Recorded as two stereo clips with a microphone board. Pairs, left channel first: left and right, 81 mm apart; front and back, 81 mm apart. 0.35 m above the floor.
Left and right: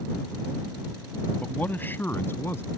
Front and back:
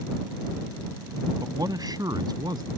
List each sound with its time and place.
1.4 s a man speaking: 155° left; by 2.7 s 150° left